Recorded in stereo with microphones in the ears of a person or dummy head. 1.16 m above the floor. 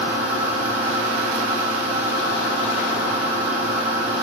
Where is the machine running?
35° right (ahead or behind), 1.1 m.